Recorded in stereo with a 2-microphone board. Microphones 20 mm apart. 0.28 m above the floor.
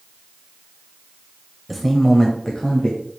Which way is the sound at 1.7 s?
Centre (ahead or behind).